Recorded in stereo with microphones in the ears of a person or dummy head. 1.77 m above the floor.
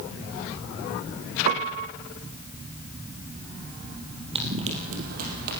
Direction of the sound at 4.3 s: 30° right (ahead or behind).